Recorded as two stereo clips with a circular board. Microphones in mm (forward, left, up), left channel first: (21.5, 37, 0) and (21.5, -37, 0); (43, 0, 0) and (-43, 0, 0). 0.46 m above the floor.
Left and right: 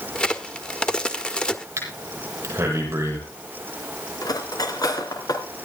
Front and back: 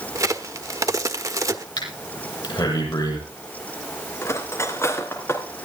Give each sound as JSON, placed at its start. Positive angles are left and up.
{"t": 0.1, "sound": "a crack", "azimuth_deg": 160, "distance_m": 1.4}
{"t": 1.8, "sound": "breathing", "azimuth_deg": -35, "distance_m": 7.5}
{"t": 4.2, "sound": "cutlery clinking", "azimuth_deg": 60, "distance_m": 3.0}